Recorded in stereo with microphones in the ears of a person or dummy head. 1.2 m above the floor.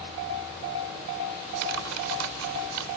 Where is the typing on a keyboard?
80° right.